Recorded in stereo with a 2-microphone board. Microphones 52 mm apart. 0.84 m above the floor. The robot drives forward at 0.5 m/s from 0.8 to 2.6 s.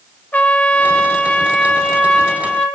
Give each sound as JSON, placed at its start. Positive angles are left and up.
{"t": 0.3, "sound": "a trumpet", "side_deg": 35, "distance_m": 0.9}